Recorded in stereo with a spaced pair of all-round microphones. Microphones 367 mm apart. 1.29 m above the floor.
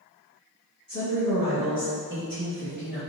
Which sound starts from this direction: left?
A woman speaking, at 0.9 s.